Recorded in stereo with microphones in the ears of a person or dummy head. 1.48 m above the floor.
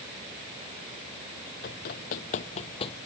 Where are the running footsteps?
50° left (ahead or behind); by 3.0 s 30° left (ahead or behind).